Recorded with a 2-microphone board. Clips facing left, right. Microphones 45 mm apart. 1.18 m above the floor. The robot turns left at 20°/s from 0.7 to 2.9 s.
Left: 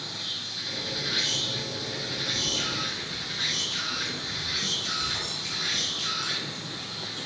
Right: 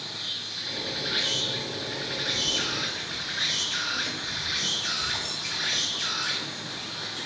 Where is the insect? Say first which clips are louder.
Even; 5° right, 2.5 m; by 7.3 s 50° right, 2.5 m.